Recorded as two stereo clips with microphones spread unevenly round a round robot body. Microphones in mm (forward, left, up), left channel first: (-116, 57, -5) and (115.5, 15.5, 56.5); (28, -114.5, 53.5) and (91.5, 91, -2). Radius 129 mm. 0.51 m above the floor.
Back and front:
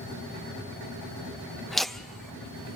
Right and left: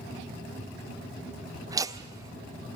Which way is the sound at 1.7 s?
105° left.